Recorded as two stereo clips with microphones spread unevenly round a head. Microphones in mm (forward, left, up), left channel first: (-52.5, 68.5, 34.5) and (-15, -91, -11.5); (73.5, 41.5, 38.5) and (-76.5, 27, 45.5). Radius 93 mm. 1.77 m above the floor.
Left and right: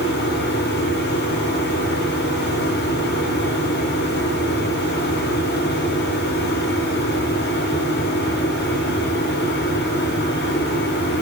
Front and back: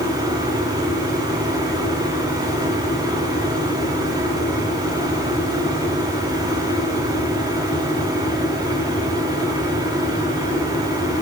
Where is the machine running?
125° left, 5.5 m.